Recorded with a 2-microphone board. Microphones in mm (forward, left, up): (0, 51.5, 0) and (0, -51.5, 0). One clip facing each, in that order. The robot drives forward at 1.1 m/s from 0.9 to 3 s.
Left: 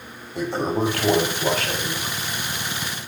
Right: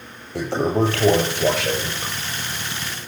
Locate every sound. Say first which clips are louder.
0.3 s a toilet flushing: right 3 dB; 85° right, 7 m; by 2.1 s 80° right, 7 m